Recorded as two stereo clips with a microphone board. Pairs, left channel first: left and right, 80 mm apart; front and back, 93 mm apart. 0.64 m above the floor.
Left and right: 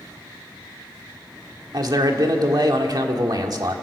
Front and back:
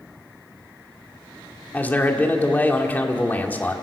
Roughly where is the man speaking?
Right.